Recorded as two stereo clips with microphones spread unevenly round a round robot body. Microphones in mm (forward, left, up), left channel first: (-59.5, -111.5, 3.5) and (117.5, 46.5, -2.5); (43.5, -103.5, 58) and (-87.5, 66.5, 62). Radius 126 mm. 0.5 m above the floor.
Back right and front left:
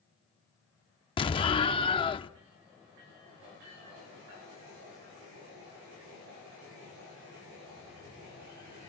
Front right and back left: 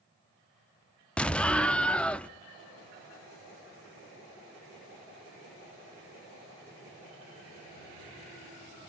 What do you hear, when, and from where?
1.2 s an explosion: 125° right, 0.7 m